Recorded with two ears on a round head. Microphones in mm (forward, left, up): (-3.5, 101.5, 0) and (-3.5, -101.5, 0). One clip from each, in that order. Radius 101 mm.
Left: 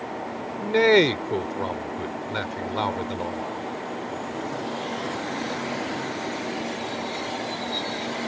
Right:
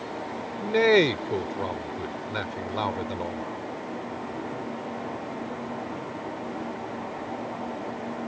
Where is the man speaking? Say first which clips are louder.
Left 2 dB; 5° left (ahead or behind).